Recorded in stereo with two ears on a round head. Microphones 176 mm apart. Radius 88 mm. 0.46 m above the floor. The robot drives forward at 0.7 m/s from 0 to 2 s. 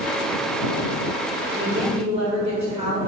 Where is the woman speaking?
40° right (ahead or behind), 1.6 m; by 3.0 s 35° right (ahead or behind), 1.8 m.